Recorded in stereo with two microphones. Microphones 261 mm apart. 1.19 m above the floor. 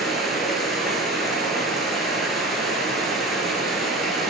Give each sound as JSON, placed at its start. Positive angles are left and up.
{"t": 0.0, "sound": "running water", "side_deg": 0, "distance_m": 8.0}